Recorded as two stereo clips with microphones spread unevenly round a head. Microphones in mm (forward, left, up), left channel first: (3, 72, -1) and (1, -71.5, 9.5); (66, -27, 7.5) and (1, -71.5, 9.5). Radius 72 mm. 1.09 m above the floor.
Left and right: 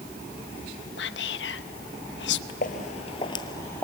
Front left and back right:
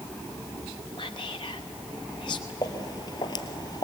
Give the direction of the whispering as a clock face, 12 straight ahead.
9 o'clock.